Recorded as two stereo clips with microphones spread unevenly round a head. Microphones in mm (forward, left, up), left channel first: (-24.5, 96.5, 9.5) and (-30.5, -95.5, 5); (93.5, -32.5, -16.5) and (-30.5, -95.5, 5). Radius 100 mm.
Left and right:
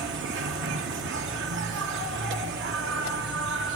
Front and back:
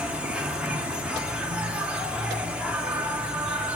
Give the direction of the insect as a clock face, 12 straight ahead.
2 o'clock.